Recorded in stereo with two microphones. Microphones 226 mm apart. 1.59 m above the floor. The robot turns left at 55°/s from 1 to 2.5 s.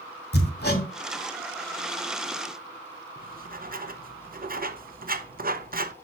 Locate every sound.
0.3 s hammering: 45° left (ahead or behind), 2 m
3.2 s writing: 40° right (ahead or behind), 0.8 m